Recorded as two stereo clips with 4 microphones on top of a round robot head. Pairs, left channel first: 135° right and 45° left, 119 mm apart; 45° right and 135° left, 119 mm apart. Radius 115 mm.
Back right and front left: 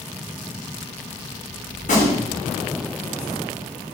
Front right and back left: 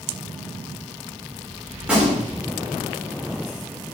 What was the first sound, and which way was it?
A gunshot, 145° right.